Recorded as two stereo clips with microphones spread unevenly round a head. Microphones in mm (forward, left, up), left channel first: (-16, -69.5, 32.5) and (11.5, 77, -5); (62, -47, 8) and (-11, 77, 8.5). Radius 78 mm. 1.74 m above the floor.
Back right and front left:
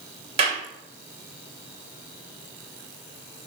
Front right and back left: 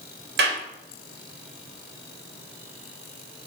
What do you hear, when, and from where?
0.4 s a clap: 135° left, 2.5 m